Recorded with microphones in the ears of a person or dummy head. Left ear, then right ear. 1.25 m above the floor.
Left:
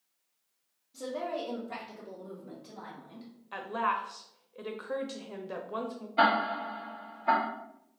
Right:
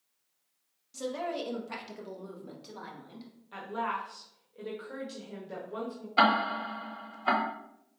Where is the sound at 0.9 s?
80° right, 1.3 m; by 3.3 s 35° right (ahead or behind), 1.8 m.